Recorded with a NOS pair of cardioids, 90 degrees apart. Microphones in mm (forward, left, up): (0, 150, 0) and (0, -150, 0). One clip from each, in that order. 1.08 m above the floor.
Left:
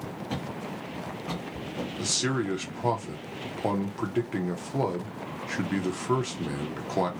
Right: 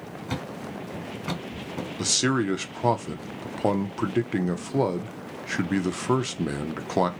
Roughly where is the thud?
Ahead right.